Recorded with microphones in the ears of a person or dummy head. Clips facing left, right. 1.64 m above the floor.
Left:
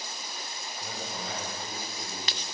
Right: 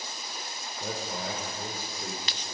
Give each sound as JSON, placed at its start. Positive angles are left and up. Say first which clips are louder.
{"t": 0.8, "sound": "a man speaking", "louder": "right 5 dB", "side_deg": -65, "distance_m": 5.5}